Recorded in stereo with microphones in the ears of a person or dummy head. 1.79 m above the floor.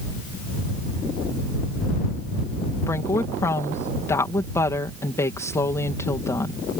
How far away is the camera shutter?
No camera shutter in this recording.